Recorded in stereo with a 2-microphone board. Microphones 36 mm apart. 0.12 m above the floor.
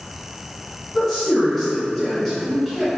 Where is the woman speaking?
5° left (ahead or behind), 1.6 m.